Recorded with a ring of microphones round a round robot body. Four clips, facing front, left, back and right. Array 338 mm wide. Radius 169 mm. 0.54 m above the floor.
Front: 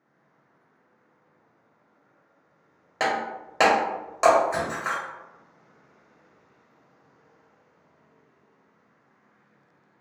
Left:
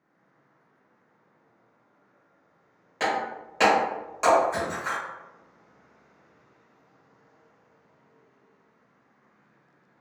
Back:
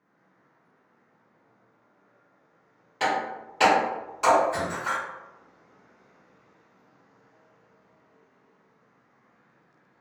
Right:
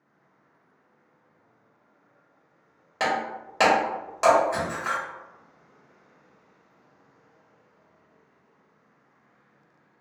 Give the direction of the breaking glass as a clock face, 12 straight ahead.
1 o'clock.